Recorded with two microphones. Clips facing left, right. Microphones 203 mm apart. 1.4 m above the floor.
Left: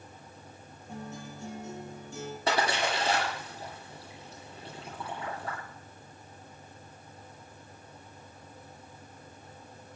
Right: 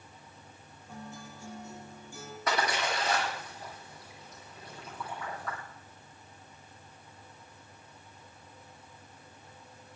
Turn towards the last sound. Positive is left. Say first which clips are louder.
# left 2 dB
turn(degrees=30)  # may be behind; listen again after turning